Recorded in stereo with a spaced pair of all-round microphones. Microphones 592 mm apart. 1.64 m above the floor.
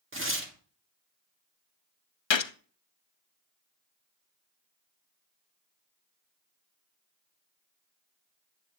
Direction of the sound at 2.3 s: 50° left (ahead or behind).